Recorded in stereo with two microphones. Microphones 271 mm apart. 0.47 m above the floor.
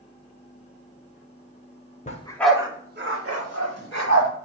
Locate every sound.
2.1 s a dog barking: 25° left (ahead or behind), 0.7 m; by 4.3 s 80° right, 1.4 m